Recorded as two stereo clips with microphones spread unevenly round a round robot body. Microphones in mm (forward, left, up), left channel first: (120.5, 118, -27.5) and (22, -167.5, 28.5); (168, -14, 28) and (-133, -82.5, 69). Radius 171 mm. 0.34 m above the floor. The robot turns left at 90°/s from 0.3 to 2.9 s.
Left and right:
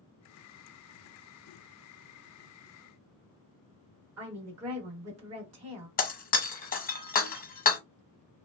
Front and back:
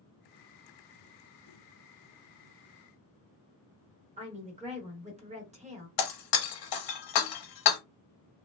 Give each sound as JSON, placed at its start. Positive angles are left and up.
{"t": 4.2, "sound": "a woman speaking", "azimuth_deg": -100, "distance_m": 1.1}
{"t": 6.0, "sound": "breaking glass", "azimuth_deg": 10, "distance_m": 0.8}